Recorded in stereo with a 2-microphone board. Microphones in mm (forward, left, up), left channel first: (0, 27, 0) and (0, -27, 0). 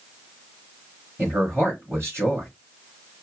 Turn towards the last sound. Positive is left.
turn(degrees=-45)  # may be behind; listen again after turning